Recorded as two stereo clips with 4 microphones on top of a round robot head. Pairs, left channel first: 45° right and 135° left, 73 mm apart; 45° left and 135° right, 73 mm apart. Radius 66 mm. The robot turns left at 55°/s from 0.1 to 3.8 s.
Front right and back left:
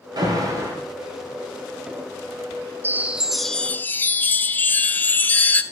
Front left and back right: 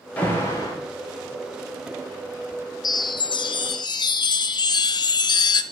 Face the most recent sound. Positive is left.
turn(degrees=25)